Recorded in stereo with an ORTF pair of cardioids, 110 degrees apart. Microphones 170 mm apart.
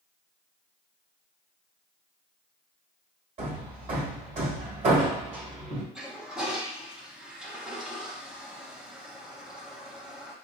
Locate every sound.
3.4 s hammering: 40° right, 1.7 m
6.0 s a toilet flushing: 5° right, 1.1 m